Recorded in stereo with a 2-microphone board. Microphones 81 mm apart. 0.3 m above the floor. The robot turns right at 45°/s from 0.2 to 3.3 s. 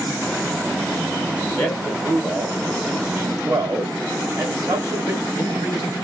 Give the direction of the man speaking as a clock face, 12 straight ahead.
7 o'clock.